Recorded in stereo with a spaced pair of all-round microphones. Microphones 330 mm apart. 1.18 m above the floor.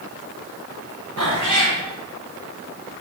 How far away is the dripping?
No dripping in this recording.